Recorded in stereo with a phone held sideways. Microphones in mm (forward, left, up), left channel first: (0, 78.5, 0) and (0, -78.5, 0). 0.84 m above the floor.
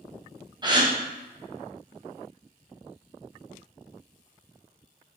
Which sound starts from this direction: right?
A gasp, at 0.6 s.